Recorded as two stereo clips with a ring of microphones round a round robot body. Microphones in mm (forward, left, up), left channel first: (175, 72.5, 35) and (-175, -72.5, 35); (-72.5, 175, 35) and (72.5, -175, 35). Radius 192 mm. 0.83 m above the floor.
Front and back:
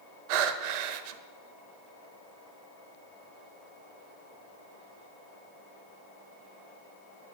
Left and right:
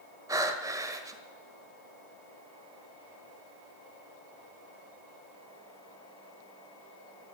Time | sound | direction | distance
0.3 | breathing | 150° right | 1.2 m